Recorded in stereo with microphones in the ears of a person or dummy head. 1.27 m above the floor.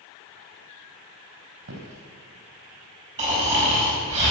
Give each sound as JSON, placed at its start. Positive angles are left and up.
{"t": 1.6, "sound": "footsteps", "side_deg": -65, "distance_m": 3.0}
{"t": 3.2, "sound": "snoring", "side_deg": -30, "distance_m": 4.5}